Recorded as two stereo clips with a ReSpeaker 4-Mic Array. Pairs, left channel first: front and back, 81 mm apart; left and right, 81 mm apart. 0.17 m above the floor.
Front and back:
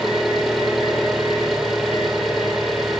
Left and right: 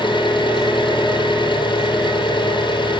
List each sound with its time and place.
0.0 s an engine running: 95° left, 3.5 m